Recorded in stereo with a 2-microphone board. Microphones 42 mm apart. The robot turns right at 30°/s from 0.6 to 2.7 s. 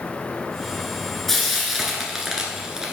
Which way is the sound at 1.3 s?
5° left (ahead or behind).